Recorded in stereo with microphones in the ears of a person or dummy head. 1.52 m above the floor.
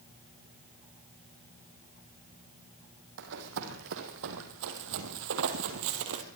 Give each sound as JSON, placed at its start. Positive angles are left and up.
{"t": 3.2, "sound": "running footsteps", "side_deg": -60, "distance_m": 3.5}